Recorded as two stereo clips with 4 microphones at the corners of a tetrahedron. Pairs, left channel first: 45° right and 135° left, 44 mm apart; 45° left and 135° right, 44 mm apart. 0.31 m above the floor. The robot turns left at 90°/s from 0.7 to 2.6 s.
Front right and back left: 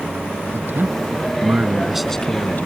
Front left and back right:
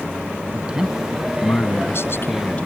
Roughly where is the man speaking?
Behind.